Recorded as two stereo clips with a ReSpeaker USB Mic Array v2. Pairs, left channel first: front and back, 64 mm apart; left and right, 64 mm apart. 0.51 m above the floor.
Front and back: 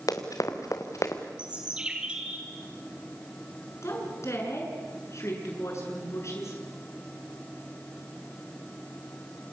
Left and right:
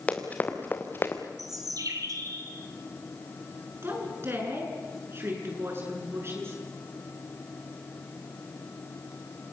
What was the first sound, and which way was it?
Running footsteps, 20° left.